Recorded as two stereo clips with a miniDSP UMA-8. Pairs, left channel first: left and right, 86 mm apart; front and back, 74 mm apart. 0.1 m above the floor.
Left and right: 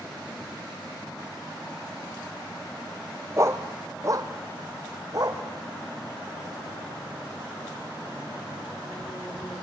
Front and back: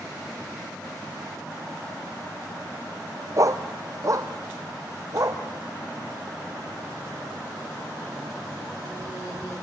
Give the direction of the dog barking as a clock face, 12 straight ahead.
5 o'clock.